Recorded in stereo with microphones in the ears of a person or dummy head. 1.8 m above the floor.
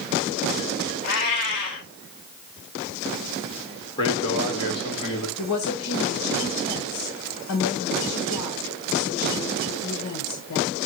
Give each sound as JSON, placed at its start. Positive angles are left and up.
{"t": 1.0, "sound": "a cat meowing", "side_deg": 60, "distance_m": 4.5}
{"t": 4.0, "sound": "a man speaking", "side_deg": 30, "distance_m": 3.5}
{"t": 5.4, "sound": "a woman speaking", "side_deg": 80, "distance_m": 2.5}